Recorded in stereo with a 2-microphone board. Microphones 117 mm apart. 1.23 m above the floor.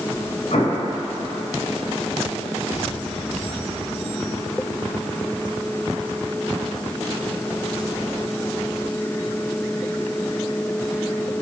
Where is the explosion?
65° left (ahead or behind), 1.3 m.